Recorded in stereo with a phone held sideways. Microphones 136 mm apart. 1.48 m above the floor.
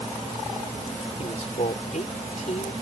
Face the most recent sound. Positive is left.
turn(degrees=60)  # may be behind; listen again after turning